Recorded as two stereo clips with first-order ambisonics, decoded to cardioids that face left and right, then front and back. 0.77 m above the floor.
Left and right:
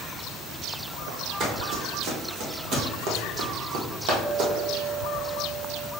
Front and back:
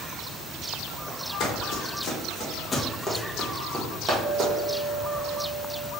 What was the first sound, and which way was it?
Running footsteps, 40° right.